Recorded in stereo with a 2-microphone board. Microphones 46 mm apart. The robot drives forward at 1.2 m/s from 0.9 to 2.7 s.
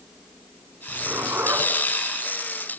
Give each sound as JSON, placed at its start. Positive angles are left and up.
{"t": 0.9, "sound": "a zipper", "side_deg": -70, "distance_m": 3.5}